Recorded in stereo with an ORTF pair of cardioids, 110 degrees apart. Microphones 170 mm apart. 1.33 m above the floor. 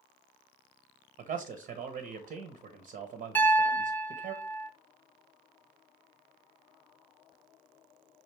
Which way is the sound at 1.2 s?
55° right.